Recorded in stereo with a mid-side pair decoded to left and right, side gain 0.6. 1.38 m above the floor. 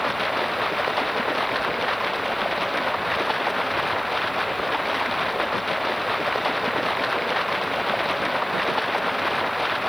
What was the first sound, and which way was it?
Running water, straight ahead.